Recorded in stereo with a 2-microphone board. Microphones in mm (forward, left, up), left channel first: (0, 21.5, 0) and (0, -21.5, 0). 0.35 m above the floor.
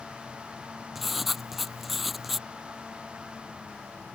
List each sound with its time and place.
0.9 s writing: 5° right (ahead or behind)